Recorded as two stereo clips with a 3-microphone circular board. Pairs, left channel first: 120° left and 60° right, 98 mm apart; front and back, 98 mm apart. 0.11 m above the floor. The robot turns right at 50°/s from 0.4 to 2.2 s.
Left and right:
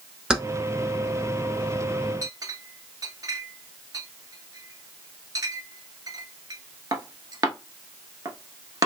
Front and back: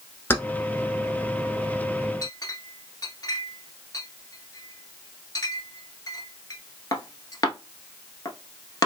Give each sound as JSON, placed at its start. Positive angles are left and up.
{"t": 0.3, "sound": "keys jangling", "azimuth_deg": 10, "distance_m": 0.8}
{"t": 2.2, "sound": "a clink", "azimuth_deg": -30, "distance_m": 0.9}